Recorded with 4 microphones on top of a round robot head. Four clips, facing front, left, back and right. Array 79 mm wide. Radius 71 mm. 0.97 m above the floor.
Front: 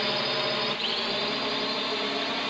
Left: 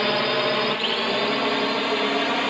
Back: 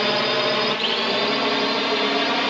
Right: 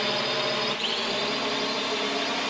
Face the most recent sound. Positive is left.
turn(degrees=150)